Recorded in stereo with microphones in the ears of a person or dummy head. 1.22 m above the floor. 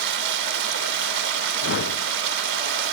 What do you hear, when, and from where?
0.0 s running water: 65° right (ahead or behind)
1.6 s a whoosh: 60° left (ahead or behind)